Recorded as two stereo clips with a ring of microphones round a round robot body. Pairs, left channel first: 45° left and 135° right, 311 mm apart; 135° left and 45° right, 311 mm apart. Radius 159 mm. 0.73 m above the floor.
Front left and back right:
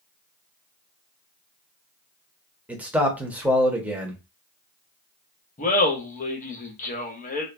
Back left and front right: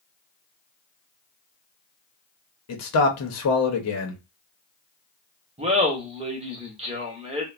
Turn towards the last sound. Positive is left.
turn(degrees=10)